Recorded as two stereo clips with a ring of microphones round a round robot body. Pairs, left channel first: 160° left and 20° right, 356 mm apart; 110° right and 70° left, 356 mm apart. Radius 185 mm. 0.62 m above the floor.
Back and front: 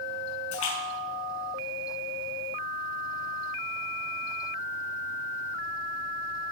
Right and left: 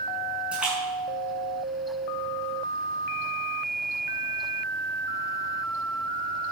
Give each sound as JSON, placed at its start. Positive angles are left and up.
{"t": 0.5, "sound": "a splash", "azimuth_deg": 155, "distance_m": 7.0}